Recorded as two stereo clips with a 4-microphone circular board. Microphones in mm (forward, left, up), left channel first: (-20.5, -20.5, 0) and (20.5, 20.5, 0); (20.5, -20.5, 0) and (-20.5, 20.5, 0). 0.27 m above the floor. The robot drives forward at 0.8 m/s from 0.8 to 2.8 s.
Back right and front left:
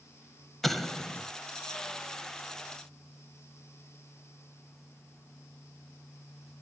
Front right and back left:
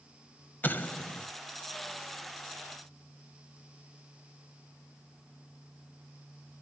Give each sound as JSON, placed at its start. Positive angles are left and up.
{"t": 0.6, "sound": "an explosion", "azimuth_deg": -50, "distance_m": 1.2}